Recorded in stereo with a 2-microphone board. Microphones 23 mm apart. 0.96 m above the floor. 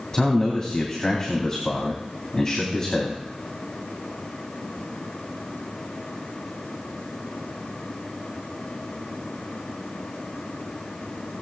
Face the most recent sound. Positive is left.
turn(degrees=25)  # may be behind; listen again after turning